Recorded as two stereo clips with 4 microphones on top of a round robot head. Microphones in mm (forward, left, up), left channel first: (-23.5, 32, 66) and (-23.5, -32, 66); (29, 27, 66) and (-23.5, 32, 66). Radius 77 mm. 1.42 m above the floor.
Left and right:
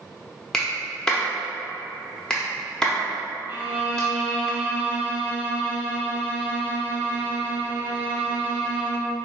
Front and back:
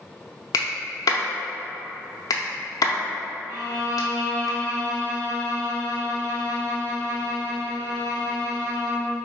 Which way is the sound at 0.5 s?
10° left.